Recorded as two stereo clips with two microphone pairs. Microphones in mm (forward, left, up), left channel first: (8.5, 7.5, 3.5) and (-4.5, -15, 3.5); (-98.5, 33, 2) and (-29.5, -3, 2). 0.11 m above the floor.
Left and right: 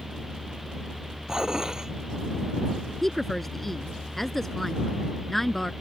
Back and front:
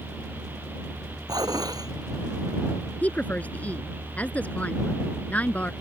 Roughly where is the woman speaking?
Behind left.